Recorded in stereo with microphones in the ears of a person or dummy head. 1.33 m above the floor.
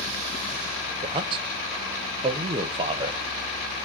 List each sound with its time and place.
1.0 s a man speaking: 30° right (ahead or behind), 0.6 m